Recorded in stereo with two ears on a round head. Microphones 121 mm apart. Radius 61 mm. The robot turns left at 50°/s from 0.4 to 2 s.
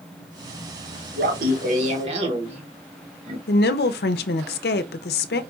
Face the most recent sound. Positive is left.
turn(degrees=85)